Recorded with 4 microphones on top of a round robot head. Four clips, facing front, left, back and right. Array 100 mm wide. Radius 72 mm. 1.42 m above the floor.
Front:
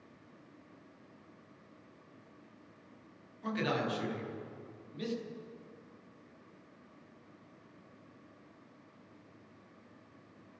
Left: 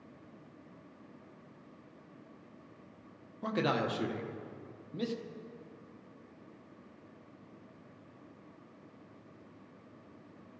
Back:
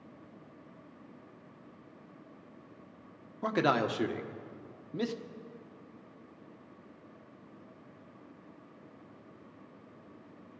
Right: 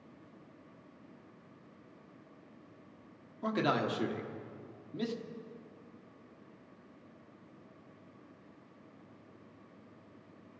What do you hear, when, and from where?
3.4 s a man speaking: 170° left, 1.2 m